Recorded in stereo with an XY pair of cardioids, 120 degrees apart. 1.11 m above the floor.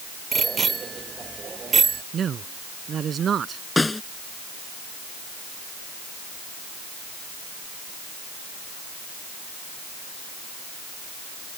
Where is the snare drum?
15° left.